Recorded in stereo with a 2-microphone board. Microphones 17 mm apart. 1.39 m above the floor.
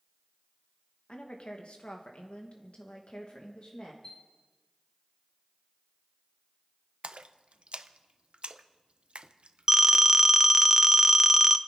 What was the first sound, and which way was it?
A woman speaking, 65° left (ahead or behind).